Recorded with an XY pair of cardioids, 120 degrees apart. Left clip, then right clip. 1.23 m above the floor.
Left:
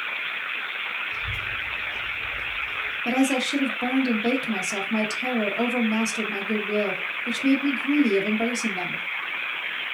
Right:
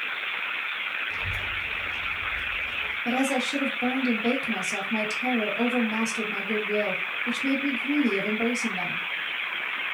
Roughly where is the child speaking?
Right.